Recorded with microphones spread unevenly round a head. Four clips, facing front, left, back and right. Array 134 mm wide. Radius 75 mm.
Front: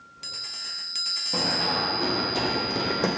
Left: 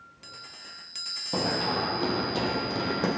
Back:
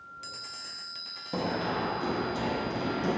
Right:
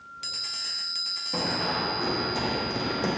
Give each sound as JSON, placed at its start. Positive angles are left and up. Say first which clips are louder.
{"t": 1.3, "sound": "running footsteps", "louder": "left 1 dB, front 2 dB", "azimuth_deg": 100, "distance_m": 1.4}